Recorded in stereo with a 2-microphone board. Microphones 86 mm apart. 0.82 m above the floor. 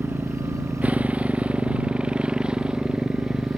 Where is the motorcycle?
20° right (ahead or behind); by 3.6 s 5° right (ahead or behind).